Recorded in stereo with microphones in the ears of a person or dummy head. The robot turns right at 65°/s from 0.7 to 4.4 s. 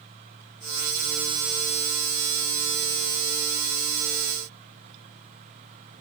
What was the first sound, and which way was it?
Only background noise.